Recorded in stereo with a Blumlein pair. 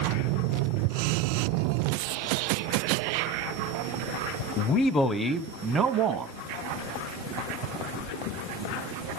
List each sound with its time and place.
4.6 s a man speaking: 35° left, 0.9 m; by 6.3 s 30° right, 1.3 m